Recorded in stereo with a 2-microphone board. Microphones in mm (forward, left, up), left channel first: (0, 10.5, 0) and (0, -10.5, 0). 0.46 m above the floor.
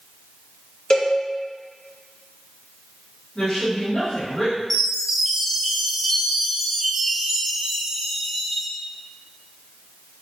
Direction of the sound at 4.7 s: Centre (ahead or behind).